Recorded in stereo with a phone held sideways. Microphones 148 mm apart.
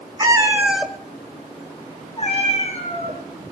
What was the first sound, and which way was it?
A cat meowing, 25° right (ahead or behind).